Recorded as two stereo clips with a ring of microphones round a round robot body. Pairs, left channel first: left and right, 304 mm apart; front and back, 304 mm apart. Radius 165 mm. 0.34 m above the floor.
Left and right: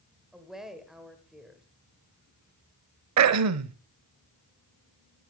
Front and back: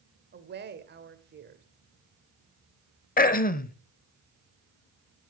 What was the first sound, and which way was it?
A woman speaking, straight behind.